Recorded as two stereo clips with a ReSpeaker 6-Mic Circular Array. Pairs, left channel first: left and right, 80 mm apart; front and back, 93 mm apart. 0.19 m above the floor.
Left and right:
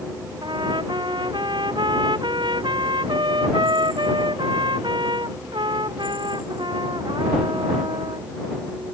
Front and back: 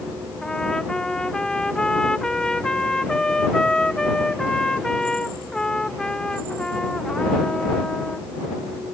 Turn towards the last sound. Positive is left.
turn(degrees=-80)